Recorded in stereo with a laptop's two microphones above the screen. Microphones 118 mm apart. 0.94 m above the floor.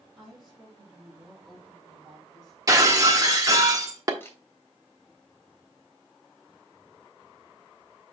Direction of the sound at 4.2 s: 20° left (ahead or behind).